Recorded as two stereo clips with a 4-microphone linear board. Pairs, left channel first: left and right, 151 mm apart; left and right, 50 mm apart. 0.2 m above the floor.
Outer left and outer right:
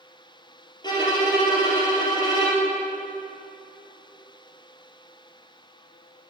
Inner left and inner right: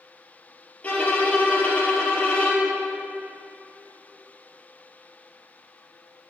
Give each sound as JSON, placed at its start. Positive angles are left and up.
{"t": 0.8, "sound": "a violin", "side_deg": 30, "distance_m": 3.0}